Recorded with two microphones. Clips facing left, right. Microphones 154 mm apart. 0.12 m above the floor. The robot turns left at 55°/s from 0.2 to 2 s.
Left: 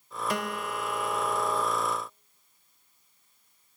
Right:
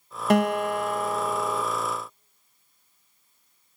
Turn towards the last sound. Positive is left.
turn(degrees=170)